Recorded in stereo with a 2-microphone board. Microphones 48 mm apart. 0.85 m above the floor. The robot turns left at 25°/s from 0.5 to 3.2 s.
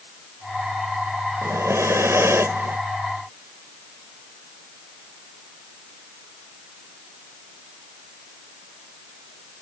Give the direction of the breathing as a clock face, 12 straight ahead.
3 o'clock.